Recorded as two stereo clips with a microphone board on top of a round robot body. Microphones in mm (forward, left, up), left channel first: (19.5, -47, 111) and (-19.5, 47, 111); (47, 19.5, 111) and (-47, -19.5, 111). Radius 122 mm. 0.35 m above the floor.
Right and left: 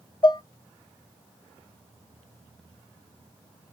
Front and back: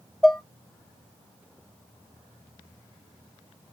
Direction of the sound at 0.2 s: 65° right.